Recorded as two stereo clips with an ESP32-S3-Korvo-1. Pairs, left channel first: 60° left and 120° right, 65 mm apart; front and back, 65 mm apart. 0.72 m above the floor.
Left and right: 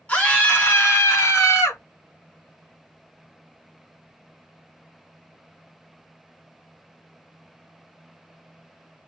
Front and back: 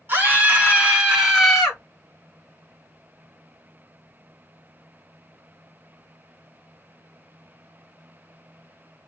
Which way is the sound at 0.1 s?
125° left.